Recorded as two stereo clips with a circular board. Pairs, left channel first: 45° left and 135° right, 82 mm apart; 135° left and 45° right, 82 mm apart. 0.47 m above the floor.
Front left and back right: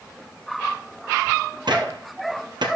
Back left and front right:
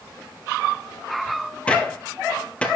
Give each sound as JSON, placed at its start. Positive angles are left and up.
{"t": 1.7, "sound": "a gunshot", "azimuth_deg": -150, "distance_m": 1.8}